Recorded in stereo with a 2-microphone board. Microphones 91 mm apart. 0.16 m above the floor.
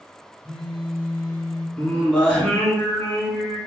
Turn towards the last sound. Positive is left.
turn(degrees=10)  # may be behind; listen again after turning